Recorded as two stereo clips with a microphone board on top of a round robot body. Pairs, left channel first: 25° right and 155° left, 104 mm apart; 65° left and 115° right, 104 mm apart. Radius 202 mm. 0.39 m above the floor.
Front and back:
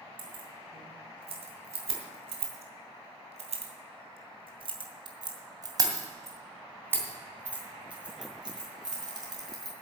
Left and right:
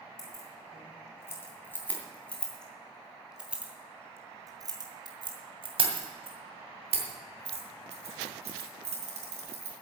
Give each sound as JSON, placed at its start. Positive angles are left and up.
{"t": 0.2, "sound": "keys jangling", "azimuth_deg": 125, "distance_m": 3.5}